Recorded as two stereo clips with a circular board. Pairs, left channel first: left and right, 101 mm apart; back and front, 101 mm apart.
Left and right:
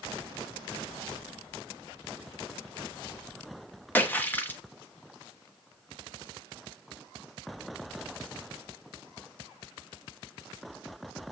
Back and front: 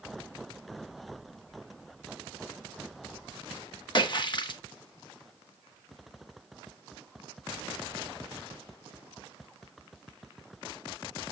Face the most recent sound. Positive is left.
turn(degrees=155)